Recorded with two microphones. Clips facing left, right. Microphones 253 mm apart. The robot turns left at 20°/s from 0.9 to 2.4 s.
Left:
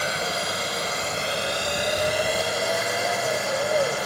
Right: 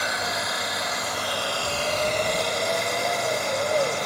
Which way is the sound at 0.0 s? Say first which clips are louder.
Left 2 dB; 35° left.